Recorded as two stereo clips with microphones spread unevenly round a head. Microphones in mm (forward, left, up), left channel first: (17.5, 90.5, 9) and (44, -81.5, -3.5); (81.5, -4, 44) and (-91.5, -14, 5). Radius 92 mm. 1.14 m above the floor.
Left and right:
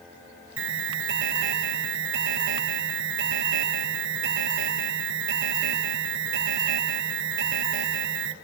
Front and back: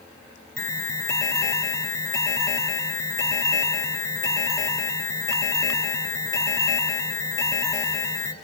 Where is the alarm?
75° right, 2.5 m.